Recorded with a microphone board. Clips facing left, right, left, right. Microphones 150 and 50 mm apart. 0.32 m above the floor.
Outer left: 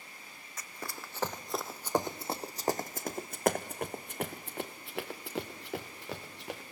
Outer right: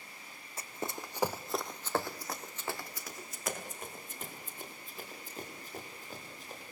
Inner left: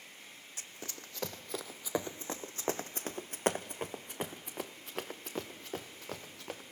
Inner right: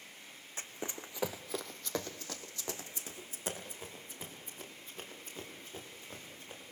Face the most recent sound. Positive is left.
turn(degrees=85)